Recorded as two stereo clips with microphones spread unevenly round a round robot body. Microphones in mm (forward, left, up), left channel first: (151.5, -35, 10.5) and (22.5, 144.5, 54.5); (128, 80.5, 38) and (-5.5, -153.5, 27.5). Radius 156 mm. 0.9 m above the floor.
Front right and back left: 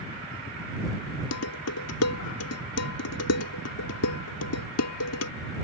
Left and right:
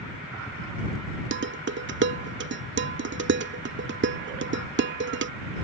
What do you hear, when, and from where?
1.3 s dishes clattering: 70° right